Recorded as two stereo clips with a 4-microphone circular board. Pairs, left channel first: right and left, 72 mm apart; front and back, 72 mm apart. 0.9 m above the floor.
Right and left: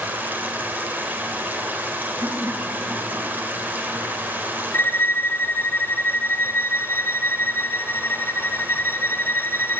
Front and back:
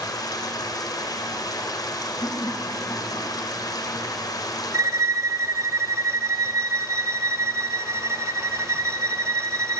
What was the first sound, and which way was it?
Running water, 25° left.